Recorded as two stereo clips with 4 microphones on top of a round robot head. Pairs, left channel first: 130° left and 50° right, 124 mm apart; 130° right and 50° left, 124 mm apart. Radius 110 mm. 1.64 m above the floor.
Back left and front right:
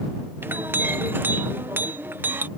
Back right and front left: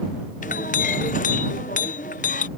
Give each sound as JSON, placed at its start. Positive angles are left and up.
{"t": 0.4, "sound": "a clink", "azimuth_deg": -125}